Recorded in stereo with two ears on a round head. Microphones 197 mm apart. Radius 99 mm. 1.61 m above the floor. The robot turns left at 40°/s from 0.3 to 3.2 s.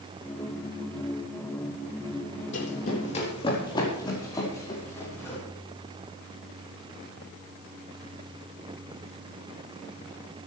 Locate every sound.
2.5 s running footsteps: 60° left (ahead or behind), 3.5 m; by 5.4 s 10° left (ahead or behind), 7 m